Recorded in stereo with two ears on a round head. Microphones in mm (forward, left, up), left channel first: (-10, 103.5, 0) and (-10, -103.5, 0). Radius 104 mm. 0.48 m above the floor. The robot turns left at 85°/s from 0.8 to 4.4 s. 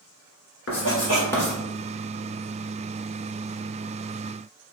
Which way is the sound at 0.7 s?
55° left (ahead or behind).